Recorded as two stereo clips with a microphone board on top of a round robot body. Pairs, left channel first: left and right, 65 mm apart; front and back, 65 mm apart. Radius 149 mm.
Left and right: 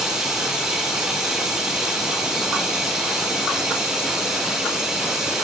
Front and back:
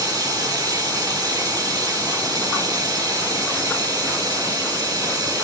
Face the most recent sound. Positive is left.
turn(degrees=-175)